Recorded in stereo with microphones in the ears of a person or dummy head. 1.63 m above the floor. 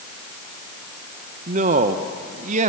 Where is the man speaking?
40° right (ahead or behind), 1.1 m.